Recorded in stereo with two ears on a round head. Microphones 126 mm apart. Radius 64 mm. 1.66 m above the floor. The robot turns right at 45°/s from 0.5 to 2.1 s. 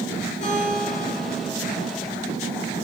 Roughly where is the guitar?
Ahead left.